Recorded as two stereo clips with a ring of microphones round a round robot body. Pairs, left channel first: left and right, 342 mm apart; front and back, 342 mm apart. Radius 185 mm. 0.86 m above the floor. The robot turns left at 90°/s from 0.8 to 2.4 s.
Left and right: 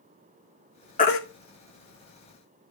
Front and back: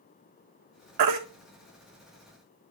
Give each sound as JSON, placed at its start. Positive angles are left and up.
{"t": 1.0, "sound": "a baby crying", "azimuth_deg": 160, "distance_m": 1.8}